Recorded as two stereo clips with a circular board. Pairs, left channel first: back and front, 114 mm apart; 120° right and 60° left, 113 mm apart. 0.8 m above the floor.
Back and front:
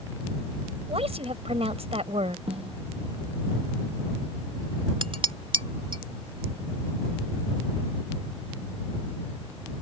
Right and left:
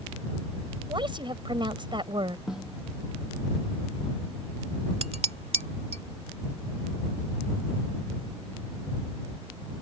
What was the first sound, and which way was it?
A woman speaking, 20° left.